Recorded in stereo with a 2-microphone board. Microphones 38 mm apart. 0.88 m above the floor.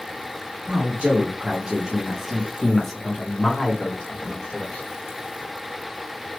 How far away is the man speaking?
About 1.2 m.